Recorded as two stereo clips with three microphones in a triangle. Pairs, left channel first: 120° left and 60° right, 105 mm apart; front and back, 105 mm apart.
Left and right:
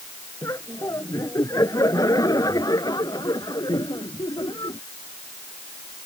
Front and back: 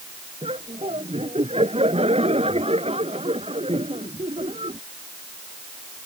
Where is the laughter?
Straight behind; by 4.8 s 165° left.